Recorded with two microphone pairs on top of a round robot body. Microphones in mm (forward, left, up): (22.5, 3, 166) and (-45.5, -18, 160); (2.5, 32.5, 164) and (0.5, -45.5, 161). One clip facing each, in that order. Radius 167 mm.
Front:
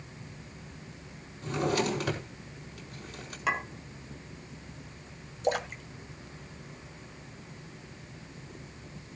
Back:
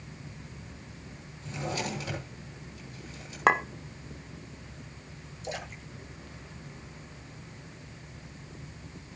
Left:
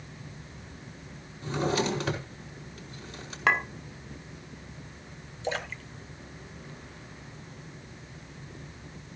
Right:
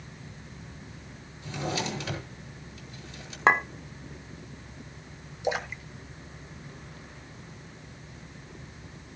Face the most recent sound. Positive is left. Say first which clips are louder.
# front 9 dB, right 3 dB
turn(degrees=-15)